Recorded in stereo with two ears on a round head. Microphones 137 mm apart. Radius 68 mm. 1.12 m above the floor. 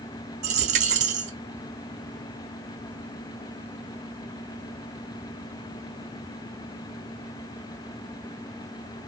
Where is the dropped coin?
45° right (ahead or behind), 1.1 m.